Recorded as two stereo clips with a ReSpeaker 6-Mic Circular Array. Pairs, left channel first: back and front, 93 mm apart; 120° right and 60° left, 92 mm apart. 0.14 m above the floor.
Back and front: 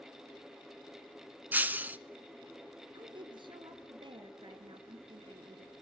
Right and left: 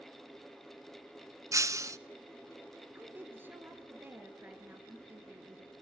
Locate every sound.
1.5 s breaking glass: 55° left, 0.8 m
2.9 s a woman speaking: 5° right, 2.5 m